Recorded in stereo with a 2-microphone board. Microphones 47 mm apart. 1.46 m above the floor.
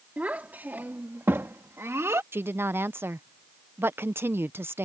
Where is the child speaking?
35° right (ahead or behind); by 2.2 s 75° right (ahead or behind).